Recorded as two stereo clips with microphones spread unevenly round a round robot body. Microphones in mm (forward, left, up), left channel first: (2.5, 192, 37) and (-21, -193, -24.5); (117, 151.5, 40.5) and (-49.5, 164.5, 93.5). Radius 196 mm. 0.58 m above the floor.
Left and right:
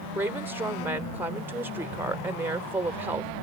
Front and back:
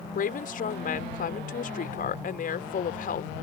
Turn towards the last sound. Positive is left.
turn(degrees=-15)